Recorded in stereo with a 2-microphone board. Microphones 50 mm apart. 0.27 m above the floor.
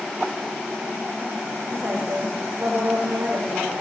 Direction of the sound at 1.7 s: 70° right (ahead or behind).